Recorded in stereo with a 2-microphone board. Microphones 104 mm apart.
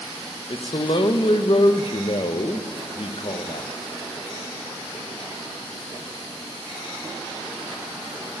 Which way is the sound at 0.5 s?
50° left (ahead or behind).